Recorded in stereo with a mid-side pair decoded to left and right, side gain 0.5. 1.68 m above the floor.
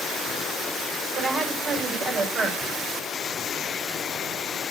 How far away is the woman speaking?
About 6.5 m.